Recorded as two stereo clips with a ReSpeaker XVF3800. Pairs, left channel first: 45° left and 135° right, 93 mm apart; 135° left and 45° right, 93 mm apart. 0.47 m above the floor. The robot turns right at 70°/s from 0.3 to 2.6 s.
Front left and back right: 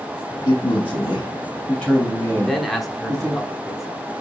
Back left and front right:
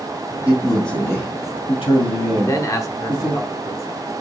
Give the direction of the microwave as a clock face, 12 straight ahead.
I don't hear a microwave.